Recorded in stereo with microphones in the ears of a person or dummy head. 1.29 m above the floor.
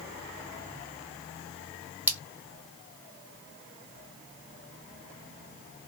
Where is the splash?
10° right (ahead or behind), 1.1 m.